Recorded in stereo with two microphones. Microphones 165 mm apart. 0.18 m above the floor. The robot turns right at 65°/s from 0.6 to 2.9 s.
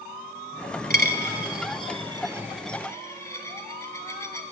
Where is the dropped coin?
60° right (ahead or behind), 0.6 m; by 4.4 s 15° left (ahead or behind), 0.6 m.